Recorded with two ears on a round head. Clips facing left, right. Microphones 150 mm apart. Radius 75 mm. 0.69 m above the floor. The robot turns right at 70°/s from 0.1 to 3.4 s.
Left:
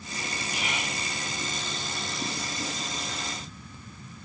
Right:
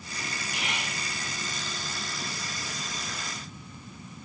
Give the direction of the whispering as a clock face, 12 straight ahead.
10 o'clock.